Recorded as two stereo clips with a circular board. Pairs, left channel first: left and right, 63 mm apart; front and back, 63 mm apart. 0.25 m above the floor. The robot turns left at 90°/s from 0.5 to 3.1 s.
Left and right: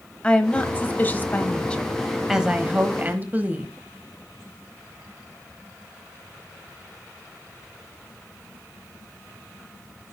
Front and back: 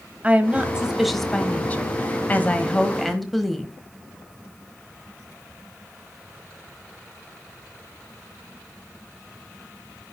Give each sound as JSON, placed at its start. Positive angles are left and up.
{"t": 0.2, "sound": "a woman speaking", "azimuth_deg": 145, "distance_m": 1.2}